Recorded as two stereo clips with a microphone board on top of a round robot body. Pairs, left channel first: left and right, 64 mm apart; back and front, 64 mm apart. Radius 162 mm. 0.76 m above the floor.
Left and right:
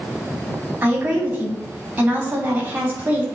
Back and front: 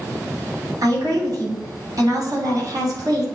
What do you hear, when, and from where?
0.8 s a woman speaking: 30° right, 3 m